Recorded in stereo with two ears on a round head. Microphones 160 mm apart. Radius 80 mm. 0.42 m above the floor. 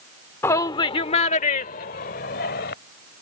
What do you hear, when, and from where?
0.4 s a shout: 15° left (ahead or behind); by 2.7 s 60° left (ahead or behind)